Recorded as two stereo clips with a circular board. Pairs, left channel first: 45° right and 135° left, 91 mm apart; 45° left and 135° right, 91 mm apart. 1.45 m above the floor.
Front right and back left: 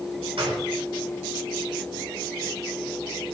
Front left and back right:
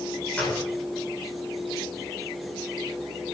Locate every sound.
0.4 s a gunshot: 125° left, 9.5 m